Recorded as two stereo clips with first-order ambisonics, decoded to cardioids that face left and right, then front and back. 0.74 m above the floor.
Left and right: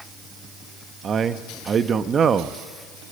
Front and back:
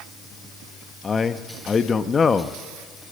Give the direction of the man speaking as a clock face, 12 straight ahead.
2 o'clock.